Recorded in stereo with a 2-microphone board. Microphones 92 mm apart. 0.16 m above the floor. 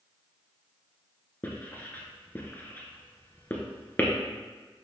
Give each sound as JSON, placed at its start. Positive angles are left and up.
{"t": 1.4, "sound": "writing", "side_deg": 20, "distance_m": 1.7}